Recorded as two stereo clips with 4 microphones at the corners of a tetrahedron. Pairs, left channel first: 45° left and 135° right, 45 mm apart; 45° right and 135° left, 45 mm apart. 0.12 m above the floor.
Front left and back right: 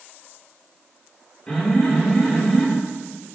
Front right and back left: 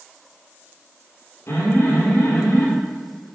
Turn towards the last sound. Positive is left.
turn(degrees=-25)